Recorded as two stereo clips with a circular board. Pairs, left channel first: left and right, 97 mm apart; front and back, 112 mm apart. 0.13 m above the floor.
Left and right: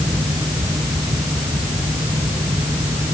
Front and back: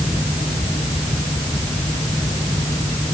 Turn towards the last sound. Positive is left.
No sound to turn to.